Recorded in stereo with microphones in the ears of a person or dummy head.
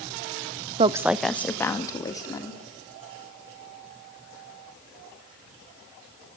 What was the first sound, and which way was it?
A woman speaking, 30° right (ahead or behind).